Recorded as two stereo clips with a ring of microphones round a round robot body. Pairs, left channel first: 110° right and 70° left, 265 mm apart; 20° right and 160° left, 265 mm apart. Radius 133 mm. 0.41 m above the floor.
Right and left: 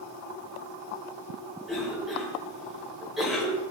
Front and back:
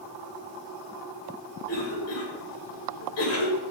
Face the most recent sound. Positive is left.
turn(degrees=-20)